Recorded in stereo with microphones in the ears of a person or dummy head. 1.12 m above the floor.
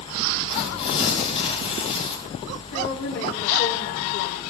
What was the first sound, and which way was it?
Tearing paper, 35° left (ahead or behind).